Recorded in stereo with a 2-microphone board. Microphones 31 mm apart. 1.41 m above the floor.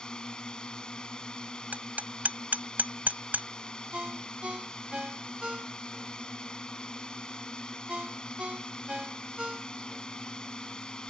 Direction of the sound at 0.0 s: 30° left (ahead or behind).